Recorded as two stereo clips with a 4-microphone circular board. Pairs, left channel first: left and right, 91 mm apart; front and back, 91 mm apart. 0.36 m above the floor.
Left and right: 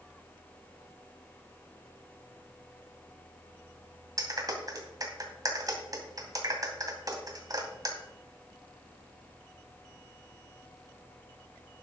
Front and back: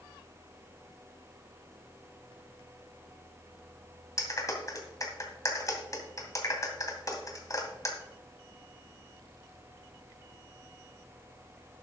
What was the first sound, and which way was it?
A clap, 45° right.